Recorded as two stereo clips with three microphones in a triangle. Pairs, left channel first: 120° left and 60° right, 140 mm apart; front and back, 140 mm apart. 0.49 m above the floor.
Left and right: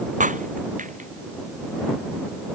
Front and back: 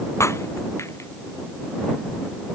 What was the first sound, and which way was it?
Breaking glass, 70° right.